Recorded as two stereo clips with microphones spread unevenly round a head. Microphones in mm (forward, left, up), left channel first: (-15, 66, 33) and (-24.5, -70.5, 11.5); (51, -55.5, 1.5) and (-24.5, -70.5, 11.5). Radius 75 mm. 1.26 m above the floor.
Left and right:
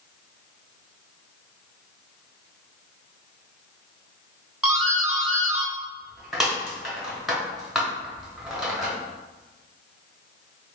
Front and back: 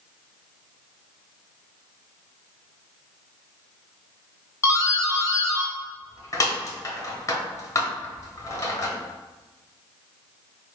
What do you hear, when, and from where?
4.6 s a doorbell: 15° right, 1.0 m